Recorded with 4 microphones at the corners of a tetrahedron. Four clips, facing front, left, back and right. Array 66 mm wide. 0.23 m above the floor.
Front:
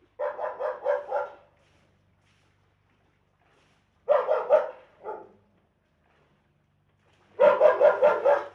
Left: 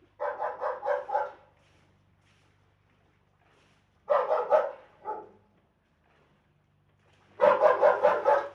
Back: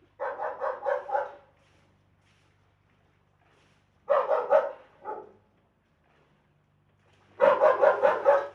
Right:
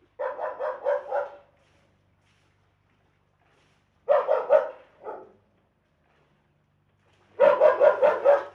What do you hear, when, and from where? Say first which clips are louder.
0.2 s a dog barking: right 2 dB, front 2 dB; 60° right, 2.0 m